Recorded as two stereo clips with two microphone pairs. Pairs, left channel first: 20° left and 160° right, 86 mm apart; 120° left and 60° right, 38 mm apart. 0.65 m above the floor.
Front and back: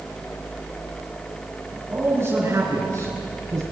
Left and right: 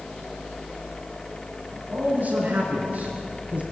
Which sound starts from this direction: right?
A man speaking, at 1.7 s.